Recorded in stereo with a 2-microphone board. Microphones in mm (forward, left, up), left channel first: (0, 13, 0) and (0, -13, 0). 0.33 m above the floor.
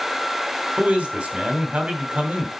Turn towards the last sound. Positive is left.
turn(degrees=-50)  # may be behind; listen again after turning